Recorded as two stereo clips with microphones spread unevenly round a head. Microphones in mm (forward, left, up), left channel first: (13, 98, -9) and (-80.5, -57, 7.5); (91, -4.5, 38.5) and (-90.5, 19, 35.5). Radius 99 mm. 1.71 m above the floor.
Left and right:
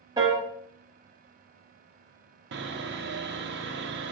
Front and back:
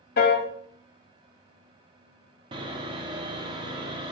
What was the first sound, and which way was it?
A piano, 50° right.